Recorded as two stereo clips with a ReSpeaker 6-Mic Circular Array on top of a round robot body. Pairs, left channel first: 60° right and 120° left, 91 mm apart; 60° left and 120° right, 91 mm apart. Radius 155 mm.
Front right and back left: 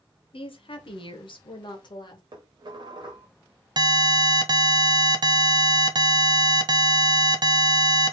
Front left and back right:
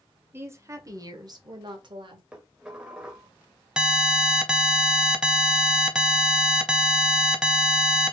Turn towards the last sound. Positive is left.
turn(degrees=160)